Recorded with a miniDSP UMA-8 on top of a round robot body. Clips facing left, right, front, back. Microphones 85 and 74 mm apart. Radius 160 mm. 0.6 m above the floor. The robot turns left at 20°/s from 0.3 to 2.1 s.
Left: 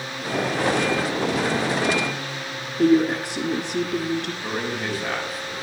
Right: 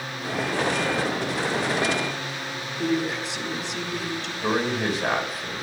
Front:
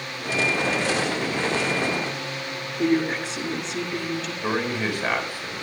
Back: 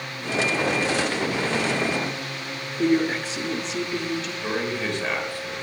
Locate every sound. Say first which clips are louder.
2.8 s a woman speaking: left 8 dB, back 1 dB; 100° left, 1.6 m
4.4 s a man speaking: right 3 dB, front 3 dB; 75° right, 5 m